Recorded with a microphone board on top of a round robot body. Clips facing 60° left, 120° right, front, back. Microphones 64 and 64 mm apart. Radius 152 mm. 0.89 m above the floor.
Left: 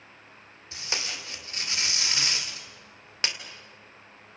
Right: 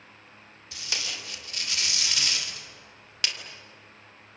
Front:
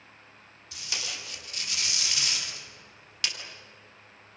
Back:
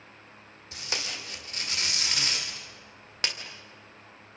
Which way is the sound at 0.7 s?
125° left.